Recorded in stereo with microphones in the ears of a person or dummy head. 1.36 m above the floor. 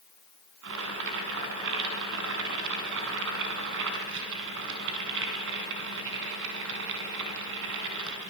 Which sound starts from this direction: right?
Boiling, at 0.6 s.